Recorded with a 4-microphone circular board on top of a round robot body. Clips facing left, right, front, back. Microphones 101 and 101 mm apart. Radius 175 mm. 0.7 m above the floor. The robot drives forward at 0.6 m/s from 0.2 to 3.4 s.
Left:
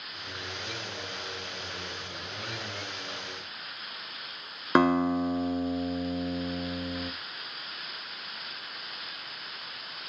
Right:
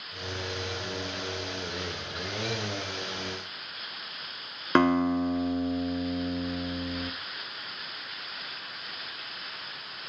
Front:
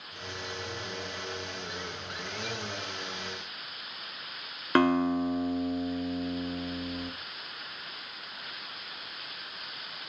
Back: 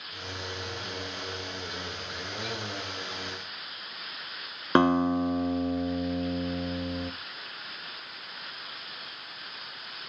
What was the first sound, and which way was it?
A guitar, 160° left.